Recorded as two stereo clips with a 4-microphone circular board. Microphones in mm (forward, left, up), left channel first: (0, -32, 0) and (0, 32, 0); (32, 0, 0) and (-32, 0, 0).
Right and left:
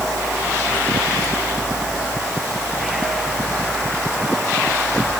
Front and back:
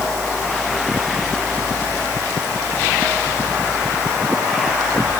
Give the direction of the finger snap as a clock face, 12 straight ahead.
I don't hear a finger snap.